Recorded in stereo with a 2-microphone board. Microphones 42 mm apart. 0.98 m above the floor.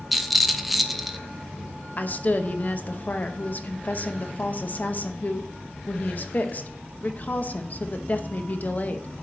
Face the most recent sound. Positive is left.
turn(degrees=40)  # may be behind; listen again after turning